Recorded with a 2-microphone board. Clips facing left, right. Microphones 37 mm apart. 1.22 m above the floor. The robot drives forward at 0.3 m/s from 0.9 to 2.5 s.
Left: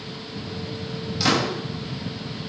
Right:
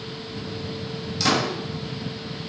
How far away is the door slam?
About 3.5 m.